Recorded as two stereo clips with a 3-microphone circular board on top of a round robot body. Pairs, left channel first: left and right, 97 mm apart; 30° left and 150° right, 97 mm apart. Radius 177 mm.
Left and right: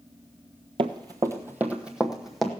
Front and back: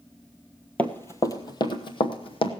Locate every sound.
0.8 s running footsteps: 45° right, 0.7 m; by 2.5 s straight ahead, 1.3 m